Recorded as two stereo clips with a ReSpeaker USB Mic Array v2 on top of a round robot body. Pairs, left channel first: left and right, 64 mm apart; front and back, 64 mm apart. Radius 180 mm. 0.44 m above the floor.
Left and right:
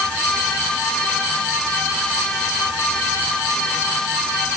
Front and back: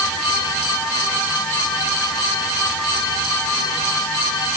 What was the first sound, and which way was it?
Only background noise.